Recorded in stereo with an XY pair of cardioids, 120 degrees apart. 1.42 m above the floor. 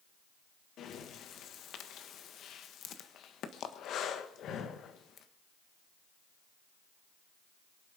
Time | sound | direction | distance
0.8 | breathing | 60° left | 1.6 m